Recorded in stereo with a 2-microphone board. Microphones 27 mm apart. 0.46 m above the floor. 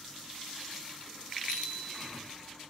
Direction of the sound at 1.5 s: 75° right (ahead or behind).